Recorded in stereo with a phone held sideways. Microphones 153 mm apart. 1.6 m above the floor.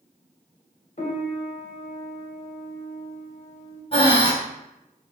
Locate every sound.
1.0 s a piano: 55° left (ahead or behind), 1.1 m
3.9 s breathing: 40° left (ahead or behind), 1.5 m